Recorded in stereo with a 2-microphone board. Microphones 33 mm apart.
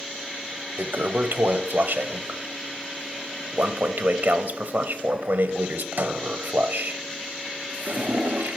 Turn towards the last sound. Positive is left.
turn(degrees=-65)  # may be behind; listen again after turning